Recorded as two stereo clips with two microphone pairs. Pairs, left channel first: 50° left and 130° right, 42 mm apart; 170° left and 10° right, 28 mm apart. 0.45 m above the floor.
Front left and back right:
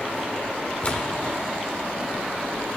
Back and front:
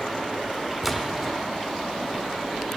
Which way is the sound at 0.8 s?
75° left.